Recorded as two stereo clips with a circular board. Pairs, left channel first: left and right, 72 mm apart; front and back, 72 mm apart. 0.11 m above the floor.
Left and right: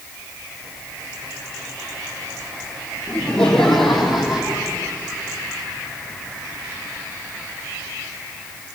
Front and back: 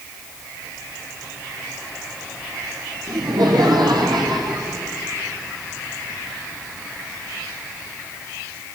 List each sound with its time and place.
3.1 s laughter: 165° left, 4 m; by 4.8 s 165° right, 4.5 m